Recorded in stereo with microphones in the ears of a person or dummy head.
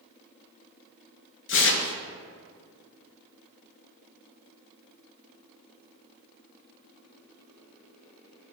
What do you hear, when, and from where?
1.5 s tearing paper: 60° left (ahead or behind), 0.7 m